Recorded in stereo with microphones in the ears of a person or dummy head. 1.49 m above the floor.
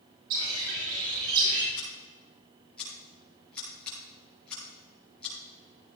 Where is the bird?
80° right, 6.5 m.